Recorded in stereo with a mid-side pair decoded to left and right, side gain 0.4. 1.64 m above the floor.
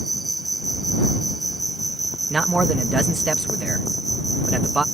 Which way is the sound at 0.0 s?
15° right.